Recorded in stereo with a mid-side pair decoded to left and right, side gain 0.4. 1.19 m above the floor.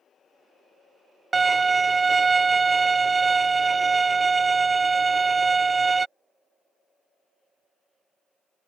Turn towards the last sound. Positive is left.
turn(degrees=-35)